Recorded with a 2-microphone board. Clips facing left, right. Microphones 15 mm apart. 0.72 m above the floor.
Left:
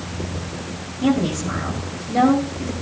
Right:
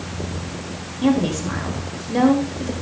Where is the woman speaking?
20° right (ahead or behind), 3.5 m.